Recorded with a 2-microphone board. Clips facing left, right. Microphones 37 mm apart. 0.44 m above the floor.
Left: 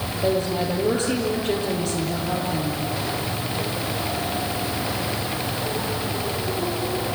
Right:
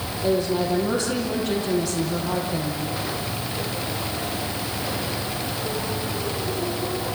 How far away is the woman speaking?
About 9.5 m.